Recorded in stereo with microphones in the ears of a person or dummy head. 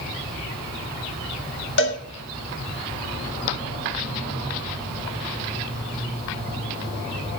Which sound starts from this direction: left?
A cowbell, at 1.8 s.